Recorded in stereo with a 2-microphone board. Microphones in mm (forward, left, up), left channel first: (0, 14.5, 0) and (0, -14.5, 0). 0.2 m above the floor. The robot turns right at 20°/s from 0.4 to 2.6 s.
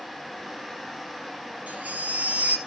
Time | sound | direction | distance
1.7 | a baby crying | 60° right (ahead or behind) | 1.8 m